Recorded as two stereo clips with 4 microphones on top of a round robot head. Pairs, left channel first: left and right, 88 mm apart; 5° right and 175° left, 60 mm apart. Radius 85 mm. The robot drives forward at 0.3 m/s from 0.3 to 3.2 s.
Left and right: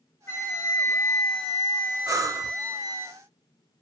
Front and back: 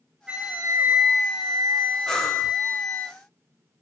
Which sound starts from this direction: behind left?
A flute, at 0.3 s.